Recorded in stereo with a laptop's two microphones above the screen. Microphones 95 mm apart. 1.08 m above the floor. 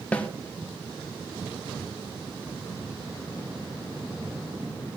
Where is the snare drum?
15° left (ahead or behind), 0.5 m.